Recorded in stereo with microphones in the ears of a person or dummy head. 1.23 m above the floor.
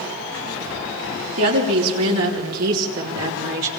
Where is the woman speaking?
80° right, 4 m; by 3.7 s 70° right (ahead or behind), 3.5 m.